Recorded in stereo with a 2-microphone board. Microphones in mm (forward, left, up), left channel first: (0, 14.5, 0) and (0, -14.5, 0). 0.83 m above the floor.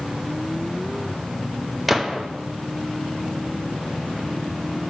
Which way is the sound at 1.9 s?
Centre (ahead or behind).